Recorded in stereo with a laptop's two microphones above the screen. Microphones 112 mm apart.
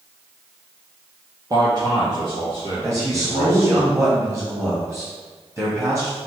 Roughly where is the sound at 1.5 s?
Right.